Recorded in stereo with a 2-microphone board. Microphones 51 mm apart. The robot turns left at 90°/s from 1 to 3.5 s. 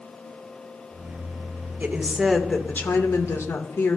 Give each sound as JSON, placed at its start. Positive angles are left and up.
{"t": 1.8, "sound": "a woman speaking", "azimuth_deg": -140, "distance_m": 1.4}